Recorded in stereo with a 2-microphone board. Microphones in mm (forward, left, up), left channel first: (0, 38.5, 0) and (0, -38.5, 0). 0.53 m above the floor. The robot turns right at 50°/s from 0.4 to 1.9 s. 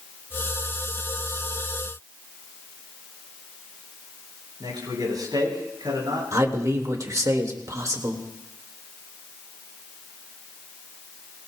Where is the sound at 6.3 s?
45° right (ahead or behind), 1.7 m.